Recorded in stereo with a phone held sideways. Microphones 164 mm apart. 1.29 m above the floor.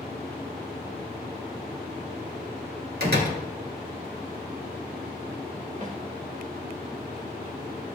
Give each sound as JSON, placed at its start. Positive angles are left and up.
{"t": 3.0, "sound": "a door slam", "side_deg": -80, "distance_m": 1.8}
{"t": 5.8, "sound": "a snare drum", "side_deg": -50, "distance_m": 1.6}